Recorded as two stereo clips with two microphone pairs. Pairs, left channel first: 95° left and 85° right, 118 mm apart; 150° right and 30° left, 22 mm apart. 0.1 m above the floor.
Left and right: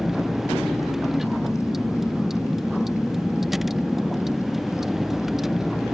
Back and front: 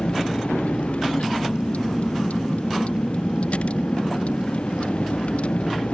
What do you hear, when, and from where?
0.0 s a vehicle: 170° right